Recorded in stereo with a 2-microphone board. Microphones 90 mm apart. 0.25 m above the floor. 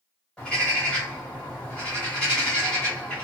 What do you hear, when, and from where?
0.4 s a bird: 10° left (ahead or behind), 1.6 m